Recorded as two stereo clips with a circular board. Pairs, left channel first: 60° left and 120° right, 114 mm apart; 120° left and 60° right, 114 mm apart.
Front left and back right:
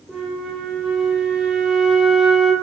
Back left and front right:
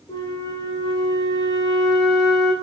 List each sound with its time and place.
0.1 s a flute: 160° left, 0.7 m